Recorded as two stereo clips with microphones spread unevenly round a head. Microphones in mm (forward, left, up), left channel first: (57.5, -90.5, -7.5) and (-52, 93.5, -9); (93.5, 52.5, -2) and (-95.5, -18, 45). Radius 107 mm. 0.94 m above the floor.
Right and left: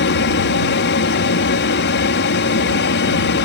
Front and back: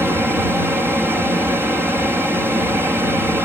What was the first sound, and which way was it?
An aircraft, 70° right.